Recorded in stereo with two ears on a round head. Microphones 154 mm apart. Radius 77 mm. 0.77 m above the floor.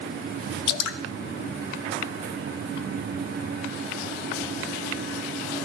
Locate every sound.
0.7 s dripping: 65° left (ahead or behind), 0.8 m